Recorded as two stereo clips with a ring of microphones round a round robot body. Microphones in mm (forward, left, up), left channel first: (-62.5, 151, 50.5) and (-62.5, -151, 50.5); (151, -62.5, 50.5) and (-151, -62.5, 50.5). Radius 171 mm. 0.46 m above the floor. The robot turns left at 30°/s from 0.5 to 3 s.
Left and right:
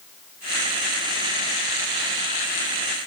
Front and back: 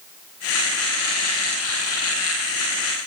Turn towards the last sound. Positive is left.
No sound to turn to.